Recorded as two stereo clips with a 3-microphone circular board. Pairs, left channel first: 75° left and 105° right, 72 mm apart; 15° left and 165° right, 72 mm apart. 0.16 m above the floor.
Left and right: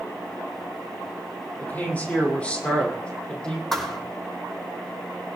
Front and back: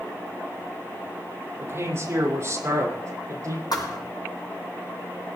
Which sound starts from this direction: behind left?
A man speaking, at 1.6 s.